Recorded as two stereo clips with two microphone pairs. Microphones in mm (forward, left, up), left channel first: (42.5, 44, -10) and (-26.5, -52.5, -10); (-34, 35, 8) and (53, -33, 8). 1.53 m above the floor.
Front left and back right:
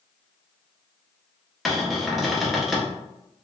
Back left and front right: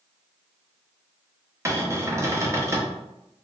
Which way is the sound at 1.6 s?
35° right.